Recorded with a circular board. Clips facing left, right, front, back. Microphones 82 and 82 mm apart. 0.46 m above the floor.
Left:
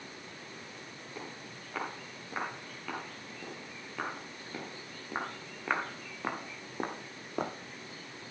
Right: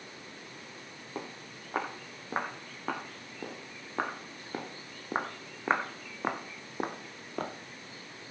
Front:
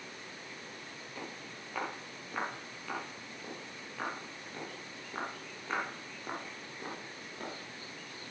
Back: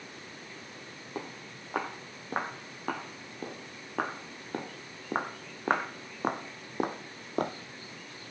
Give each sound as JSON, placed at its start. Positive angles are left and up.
{"t": 1.1, "sound": "footsteps", "azimuth_deg": -140, "distance_m": 5.0}